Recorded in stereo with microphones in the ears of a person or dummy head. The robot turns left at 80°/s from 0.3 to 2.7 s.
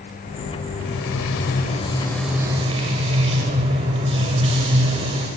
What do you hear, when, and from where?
0.8 s frying: 110° left, 4 m; by 5.3 s 35° right, 4 m